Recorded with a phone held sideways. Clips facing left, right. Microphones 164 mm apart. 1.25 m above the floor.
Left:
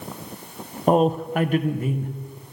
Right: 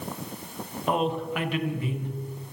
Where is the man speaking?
40° left (ahead or behind), 0.6 m; by 2.1 s 45° left (ahead or behind), 1.3 m.